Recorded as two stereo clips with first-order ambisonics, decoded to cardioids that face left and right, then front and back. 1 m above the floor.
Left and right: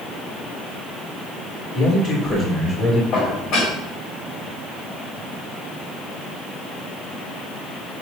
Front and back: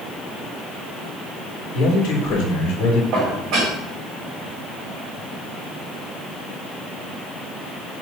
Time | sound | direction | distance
1.7 | a man speaking | 35° left | 3 m
3.1 | dishes clattering | 135° left | 3.5 m